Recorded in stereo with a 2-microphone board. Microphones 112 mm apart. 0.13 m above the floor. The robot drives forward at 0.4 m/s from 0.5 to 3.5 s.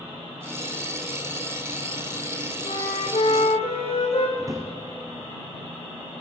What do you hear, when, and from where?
2.6 s a flute: 60° left (ahead or behind), 3 m; by 4.3 s 65° left (ahead or behind), 3 m
4.4 s a drawer: 30° right (ahead or behind), 2.5 m